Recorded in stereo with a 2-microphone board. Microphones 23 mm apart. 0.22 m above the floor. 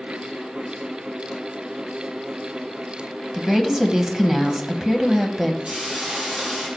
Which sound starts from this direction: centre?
A woman speaking, at 3.3 s.